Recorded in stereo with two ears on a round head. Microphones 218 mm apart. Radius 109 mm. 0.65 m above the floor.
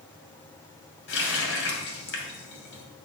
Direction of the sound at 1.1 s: 50° left (ahead or behind).